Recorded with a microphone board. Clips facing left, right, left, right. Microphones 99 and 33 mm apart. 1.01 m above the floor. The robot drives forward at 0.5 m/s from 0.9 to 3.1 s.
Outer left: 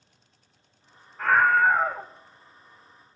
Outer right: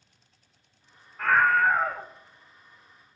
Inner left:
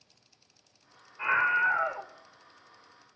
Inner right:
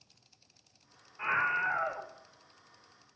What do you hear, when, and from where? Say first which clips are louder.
1.2 s a scream: outer left 2 dB, inner left 5 dB; 5° left (ahead or behind), 1.1 m; by 2.1 s 10° left (ahead or behind), 0.8 m